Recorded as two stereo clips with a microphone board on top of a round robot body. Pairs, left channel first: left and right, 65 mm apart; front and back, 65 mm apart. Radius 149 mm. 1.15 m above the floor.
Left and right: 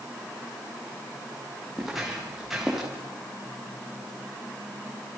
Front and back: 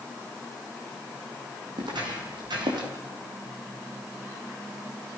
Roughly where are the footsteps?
Behind.